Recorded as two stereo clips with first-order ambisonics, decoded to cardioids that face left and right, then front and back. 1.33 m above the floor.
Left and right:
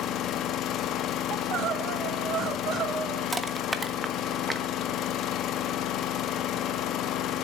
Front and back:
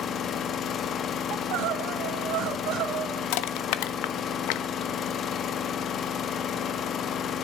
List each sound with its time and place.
0.0 s an engine running: 55° left, 1.0 m
1.3 s crying: 145° right, 1.6 m
3.3 s crushing: 10° right, 1.1 m